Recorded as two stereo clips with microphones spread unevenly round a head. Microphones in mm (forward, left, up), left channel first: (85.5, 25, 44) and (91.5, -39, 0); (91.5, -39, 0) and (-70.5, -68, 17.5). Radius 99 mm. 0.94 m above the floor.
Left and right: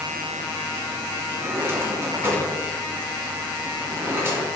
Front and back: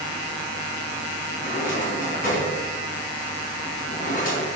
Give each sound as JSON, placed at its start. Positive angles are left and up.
{"t": 1.4, "sound": "a drawer", "azimuth_deg": -30, "distance_m": 4.5}